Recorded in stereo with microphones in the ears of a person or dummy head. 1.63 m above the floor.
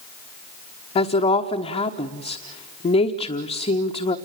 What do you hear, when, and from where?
0.9 s a woman speaking: 30° left (ahead or behind), 1.2 m